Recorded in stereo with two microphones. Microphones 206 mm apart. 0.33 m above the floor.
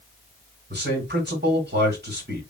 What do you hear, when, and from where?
0.7 s a man speaking: 55° right (ahead or behind), 3 m